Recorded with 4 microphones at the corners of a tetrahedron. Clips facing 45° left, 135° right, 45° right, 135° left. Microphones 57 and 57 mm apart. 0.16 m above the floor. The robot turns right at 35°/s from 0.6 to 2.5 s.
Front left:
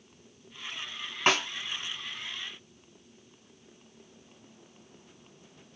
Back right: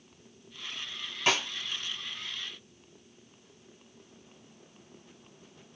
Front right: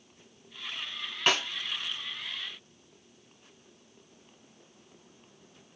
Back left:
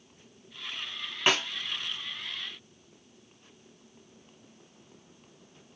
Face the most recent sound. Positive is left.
turn(degrees=100)